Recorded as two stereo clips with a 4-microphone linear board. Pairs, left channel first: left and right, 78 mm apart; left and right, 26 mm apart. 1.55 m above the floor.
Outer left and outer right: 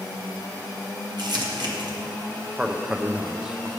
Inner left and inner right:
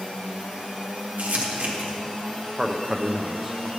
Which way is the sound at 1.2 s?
60° right (ahead or behind).